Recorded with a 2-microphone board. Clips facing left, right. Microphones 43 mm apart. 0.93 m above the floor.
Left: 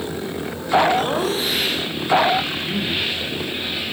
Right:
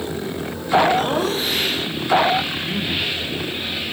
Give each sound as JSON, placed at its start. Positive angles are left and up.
{"t": 1.0, "sound": "laughter", "side_deg": 0, "distance_m": 4.0}
{"t": 2.6, "sound": "a man speaking", "side_deg": 10, "distance_m": 4.5}